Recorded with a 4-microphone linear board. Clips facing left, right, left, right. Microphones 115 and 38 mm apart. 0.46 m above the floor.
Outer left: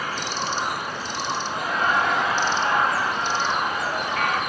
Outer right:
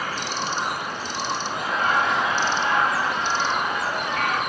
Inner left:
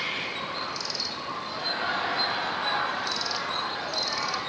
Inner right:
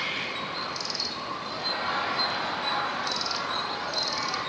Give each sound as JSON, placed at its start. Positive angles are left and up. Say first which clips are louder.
{"t": 1.5, "sound": "laughter", "louder": "even, even", "side_deg": 50, "distance_m": 5.0}